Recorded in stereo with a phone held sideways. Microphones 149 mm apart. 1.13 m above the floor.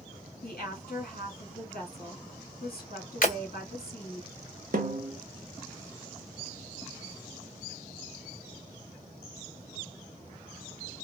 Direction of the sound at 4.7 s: 70° right (ahead or behind).